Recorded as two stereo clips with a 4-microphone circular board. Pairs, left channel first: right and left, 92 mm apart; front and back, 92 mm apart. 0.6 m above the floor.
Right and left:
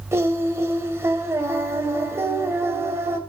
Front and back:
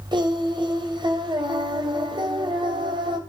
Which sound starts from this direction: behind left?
Singing, at 0.1 s.